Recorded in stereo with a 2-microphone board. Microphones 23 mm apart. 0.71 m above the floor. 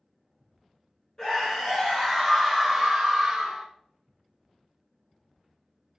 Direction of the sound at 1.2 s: 35° left (ahead or behind).